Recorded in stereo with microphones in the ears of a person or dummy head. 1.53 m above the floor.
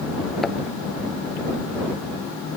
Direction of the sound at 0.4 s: 15° left (ahead or behind).